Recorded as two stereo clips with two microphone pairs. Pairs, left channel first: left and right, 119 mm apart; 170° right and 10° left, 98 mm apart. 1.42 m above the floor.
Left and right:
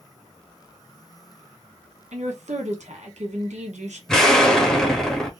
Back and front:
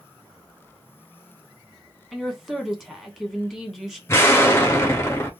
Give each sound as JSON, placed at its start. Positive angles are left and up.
{"t": 2.1, "sound": "a woman speaking", "azimuth_deg": -75, "distance_m": 1.2}
{"t": 4.1, "sound": "an explosion", "azimuth_deg": 170, "distance_m": 0.8}